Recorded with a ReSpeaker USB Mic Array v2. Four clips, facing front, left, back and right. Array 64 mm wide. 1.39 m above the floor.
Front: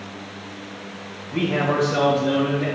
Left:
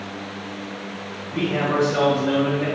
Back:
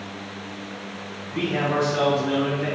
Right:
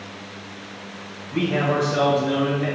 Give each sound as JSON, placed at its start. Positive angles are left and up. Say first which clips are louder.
{"t": 1.3, "sound": "a man speaking", "louder": "even, front 2 dB", "azimuth_deg": -20, "distance_m": 1.0}